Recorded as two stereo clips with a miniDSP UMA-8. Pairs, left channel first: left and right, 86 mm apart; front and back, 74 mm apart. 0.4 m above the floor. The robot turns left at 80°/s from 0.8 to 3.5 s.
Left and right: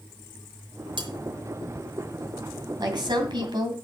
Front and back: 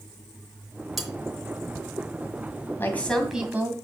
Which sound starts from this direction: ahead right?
A woman speaking, at 2.8 s.